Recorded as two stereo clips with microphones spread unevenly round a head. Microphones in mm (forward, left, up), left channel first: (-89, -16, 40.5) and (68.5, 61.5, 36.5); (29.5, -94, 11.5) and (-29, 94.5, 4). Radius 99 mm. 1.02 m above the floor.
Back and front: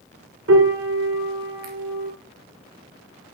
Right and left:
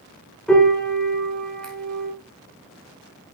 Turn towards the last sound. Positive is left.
turn(degrees=15)